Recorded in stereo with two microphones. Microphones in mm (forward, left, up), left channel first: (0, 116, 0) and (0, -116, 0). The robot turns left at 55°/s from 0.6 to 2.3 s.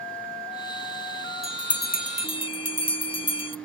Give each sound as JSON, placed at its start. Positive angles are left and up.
{"t": 1.4, "sound": "a bell", "side_deg": 65, "distance_m": 0.6}